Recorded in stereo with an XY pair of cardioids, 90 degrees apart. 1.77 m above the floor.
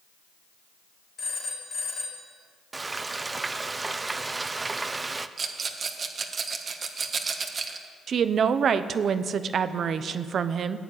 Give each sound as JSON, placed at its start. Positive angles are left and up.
{"t": 1.2, "sound": "a phone ringing", "azimuth_deg": 55, "distance_m": 3.5}
{"t": 2.7, "sound": "frying", "azimuth_deg": -25, "distance_m": 0.7}
{"t": 5.4, "sound": "a rattle", "azimuth_deg": -50, "distance_m": 1.6}
{"t": 8.1, "sound": "a woman speaking", "azimuth_deg": -60, "distance_m": 0.9}